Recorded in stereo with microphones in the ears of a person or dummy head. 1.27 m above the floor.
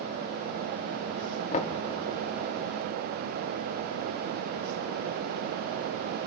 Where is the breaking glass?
No breaking glass in this recording.